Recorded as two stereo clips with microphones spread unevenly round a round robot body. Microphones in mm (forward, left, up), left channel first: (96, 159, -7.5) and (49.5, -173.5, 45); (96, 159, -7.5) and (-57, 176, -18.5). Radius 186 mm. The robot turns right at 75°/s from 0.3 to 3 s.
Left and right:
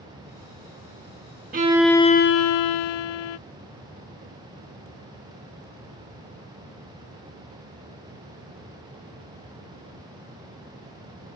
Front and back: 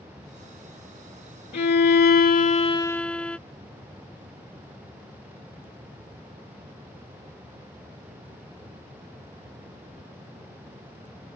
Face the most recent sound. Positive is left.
turn(degrees=75)